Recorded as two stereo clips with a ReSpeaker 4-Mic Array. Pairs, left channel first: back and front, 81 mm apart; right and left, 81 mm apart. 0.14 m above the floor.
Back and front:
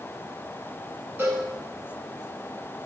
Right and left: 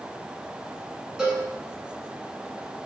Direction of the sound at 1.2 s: 20° left.